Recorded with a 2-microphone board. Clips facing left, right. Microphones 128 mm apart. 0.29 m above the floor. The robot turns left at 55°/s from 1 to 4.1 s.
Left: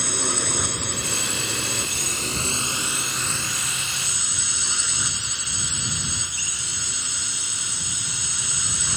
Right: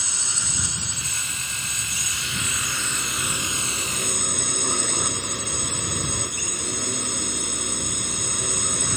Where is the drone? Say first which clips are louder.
Left 9 dB; 115° left; by 9.0 s 55° right.